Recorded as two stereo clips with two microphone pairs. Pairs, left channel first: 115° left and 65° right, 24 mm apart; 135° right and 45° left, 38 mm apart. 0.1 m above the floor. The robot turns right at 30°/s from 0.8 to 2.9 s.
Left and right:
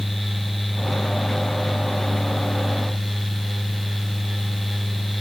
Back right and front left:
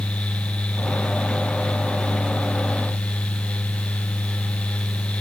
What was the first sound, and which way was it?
Only background noise.